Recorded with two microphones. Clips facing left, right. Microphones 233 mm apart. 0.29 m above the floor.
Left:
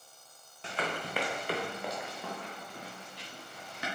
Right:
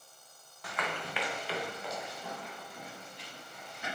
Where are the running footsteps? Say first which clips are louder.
Left 2 dB; 25° left (ahead or behind), 1.2 m; by 3.9 s 80° left, 3.5 m.